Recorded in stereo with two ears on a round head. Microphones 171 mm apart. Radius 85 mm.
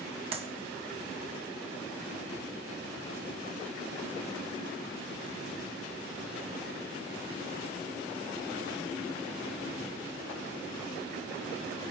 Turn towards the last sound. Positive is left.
turn(degrees=-35)  # may be behind; listen again after turning